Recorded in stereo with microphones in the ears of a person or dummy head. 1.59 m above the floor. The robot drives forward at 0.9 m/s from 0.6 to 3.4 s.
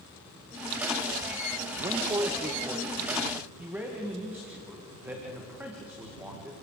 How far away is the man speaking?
About 0.6 m.